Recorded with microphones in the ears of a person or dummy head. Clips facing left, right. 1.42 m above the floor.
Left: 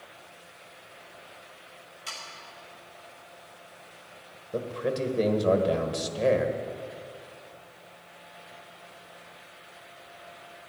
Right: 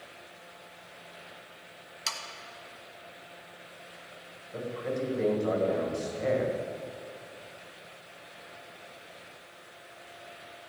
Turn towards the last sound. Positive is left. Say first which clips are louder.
# left 4 dB
turn(degrees=50)  # may be behind; listen again after turning